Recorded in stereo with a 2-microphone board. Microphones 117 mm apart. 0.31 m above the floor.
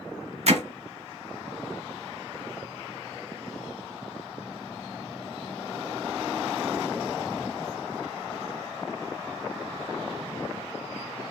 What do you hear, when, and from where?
0.5 s hammering: 65° right (ahead or behind), 0.6 m